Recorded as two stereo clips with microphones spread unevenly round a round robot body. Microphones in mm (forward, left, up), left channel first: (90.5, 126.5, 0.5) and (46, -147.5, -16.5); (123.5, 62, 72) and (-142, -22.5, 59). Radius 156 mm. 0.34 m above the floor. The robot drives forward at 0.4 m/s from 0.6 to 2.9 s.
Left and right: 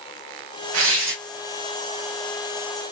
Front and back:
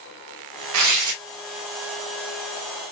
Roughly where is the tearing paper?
Behind right.